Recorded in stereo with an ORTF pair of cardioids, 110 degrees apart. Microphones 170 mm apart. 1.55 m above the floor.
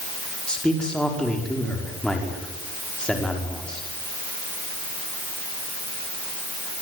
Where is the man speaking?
5° left, 5 m.